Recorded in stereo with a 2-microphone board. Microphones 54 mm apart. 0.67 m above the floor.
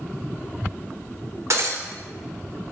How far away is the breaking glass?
About 1.1 m.